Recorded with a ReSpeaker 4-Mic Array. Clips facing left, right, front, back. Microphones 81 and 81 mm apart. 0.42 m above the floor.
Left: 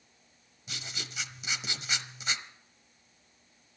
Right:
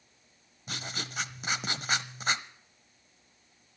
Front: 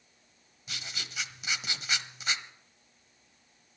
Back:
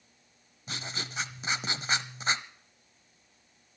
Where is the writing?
130° right, 0.8 m.